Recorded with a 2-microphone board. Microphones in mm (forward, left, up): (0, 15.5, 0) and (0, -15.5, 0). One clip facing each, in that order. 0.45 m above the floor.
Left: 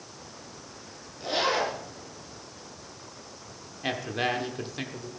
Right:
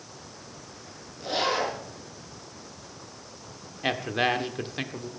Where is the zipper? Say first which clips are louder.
Even; 10° left (ahead or behind), 6.5 m.